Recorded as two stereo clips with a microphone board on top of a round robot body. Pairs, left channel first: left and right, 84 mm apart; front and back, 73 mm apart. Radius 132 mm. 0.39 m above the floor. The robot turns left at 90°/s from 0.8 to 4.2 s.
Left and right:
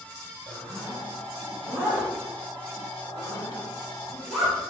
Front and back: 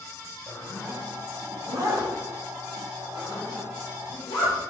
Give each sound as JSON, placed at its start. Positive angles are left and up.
{"t": 0.5, "sound": "a zipper", "azimuth_deg": -55, "distance_m": 3.0}